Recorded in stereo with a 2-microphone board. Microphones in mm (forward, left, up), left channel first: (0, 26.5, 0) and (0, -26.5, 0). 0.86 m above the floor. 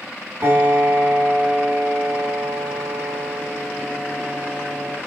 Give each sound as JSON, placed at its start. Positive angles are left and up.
{"t": 0.4, "sound": "a piano", "side_deg": -40, "distance_m": 3.0}